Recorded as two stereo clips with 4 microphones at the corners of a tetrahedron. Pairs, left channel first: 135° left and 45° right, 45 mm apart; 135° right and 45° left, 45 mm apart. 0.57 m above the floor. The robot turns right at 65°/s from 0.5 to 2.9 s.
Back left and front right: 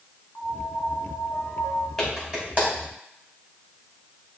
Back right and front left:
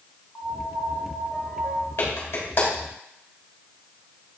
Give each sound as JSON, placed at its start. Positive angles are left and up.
{"t": 0.3, "sound": "a piano", "azimuth_deg": 155, "distance_m": 1.4}
{"t": 2.0, "sound": "a clap", "azimuth_deg": -135, "distance_m": 3.0}